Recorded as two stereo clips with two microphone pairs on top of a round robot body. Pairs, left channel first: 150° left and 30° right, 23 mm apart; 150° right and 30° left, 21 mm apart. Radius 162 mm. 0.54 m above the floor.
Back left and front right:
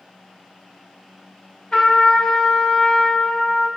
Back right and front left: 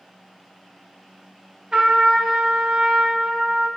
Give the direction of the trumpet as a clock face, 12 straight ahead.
9 o'clock.